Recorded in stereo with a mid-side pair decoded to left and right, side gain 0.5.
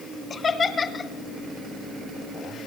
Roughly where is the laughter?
Ahead left.